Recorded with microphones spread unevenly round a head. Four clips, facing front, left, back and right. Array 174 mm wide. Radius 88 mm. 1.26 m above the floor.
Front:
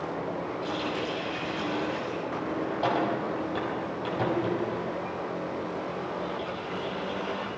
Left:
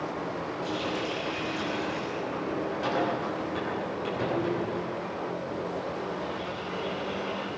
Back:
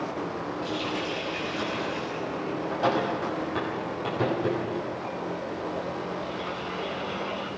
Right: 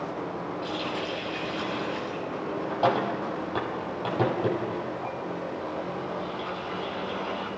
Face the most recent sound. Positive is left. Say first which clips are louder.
# left 2 dB, back 1 dB
turn(degrees=-90)